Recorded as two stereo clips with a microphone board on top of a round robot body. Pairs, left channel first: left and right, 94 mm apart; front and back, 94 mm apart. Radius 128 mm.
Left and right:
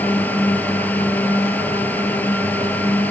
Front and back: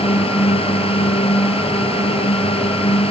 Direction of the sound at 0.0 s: 15° left.